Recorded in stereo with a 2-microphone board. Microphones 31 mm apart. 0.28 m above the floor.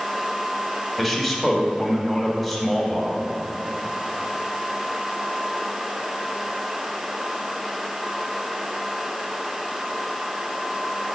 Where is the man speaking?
5° left (ahead or behind), 1.4 m.